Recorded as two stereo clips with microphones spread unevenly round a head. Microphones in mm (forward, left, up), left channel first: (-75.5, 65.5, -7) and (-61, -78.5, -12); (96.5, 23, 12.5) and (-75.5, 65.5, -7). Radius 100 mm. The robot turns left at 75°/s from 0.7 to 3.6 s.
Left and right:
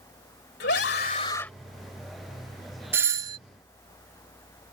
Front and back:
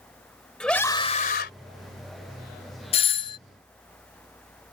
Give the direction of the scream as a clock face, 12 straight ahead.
10 o'clock.